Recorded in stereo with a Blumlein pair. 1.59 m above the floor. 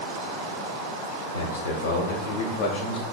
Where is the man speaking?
65° left, 1.4 m; by 3.0 s 30° left, 0.6 m.